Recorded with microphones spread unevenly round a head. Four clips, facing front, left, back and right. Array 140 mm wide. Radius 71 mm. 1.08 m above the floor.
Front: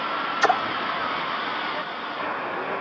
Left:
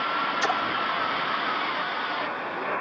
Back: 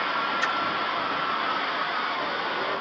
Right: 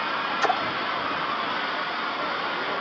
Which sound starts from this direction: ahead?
A splash, at 0.4 s.